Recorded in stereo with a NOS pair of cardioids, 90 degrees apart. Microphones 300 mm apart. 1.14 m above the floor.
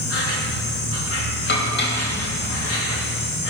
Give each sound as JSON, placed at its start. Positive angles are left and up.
{"t": 0.0, "sound": "an insect", "azimuth_deg": 55, "distance_m": 3.0}
{"t": 1.5, "sound": "dishes clattering", "azimuth_deg": 40, "distance_m": 3.5}